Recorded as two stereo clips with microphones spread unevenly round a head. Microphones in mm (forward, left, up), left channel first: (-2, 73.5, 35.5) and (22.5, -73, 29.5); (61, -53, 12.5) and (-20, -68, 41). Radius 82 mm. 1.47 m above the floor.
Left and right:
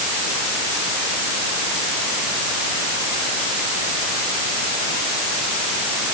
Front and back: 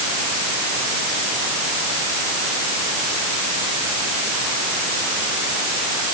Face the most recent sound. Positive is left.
No sound to turn to.